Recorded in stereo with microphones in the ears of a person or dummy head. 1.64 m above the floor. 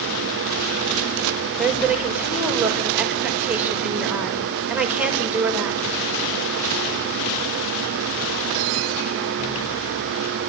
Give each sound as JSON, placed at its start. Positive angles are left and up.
{"t": 1.6, "sound": "a woman speaking", "side_deg": -10, "distance_m": 5.0}